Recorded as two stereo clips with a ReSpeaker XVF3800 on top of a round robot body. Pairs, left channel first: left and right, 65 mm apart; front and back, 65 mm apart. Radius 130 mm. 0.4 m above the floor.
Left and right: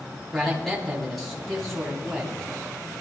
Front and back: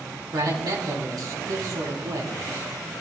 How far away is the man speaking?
About 3.5 m.